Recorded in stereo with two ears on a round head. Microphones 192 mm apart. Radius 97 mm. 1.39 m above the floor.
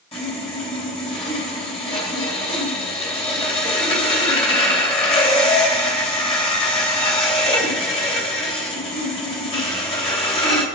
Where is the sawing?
30° left (ahead or behind), 3 m.